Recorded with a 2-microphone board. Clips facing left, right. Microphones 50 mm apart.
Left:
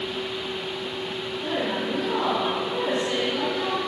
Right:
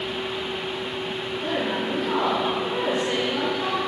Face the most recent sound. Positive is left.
turn(degrees=-30)  # may be behind; listen again after turning